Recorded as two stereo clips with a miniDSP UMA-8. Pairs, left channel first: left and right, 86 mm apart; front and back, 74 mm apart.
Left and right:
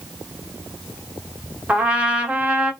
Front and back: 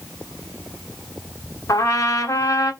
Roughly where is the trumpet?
Ahead.